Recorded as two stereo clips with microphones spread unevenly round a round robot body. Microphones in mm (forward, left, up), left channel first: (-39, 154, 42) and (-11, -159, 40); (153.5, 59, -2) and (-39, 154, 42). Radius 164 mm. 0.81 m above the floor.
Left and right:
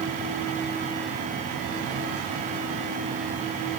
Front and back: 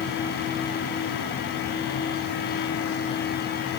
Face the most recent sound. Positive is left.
No sound to turn to.